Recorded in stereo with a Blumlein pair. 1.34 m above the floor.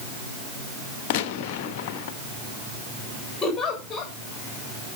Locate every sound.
1.1 s a gunshot: 45° left, 1.2 m
3.4 s a giggle: 15° left, 7 m